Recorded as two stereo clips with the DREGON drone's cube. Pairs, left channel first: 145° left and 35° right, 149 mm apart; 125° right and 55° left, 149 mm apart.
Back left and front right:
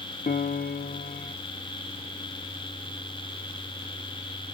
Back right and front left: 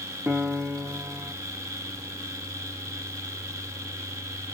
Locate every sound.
0.3 s a piano: 135° left, 0.5 m